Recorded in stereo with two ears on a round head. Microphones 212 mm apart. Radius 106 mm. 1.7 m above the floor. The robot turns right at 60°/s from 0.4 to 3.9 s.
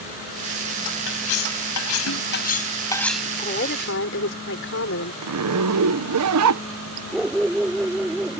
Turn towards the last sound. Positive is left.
turn(degrees=0)  # may be behind; listen again after turning